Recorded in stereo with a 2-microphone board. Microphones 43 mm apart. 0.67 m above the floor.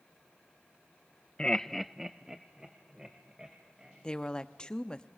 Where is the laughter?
20° left (ahead or behind), 0.6 m; by 4.0 s 15° right (ahead or behind), 3 m.